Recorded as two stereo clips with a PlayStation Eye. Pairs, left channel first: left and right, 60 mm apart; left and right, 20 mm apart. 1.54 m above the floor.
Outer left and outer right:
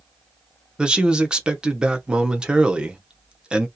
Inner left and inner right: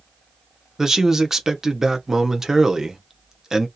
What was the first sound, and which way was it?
A man speaking, 15° right (ahead or behind).